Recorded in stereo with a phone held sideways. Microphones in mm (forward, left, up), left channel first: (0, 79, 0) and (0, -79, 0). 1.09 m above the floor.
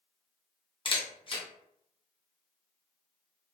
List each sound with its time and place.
0.8 s a camera shutter: 35° left (ahead or behind), 0.6 m